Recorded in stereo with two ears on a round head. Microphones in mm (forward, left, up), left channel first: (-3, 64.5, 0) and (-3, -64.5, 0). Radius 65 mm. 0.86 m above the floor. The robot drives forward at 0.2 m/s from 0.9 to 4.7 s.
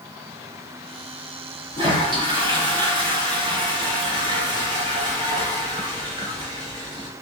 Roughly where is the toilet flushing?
Right.